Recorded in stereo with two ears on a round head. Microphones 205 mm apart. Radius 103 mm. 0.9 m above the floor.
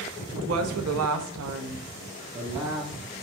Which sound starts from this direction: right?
A woman speaking, at 0.3 s.